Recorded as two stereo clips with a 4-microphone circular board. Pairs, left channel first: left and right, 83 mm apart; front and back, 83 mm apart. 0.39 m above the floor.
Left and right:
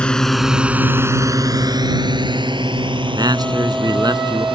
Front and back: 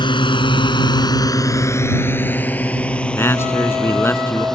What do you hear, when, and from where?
0.0 s a drone: 15° left; by 4.5 s 85° right
3.1 s a man speaking: 60° right